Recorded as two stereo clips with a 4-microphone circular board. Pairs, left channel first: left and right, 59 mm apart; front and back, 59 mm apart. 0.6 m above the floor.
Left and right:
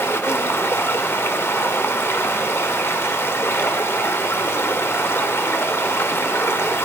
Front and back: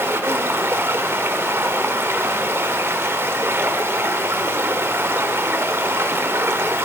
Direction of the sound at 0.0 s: 135° left.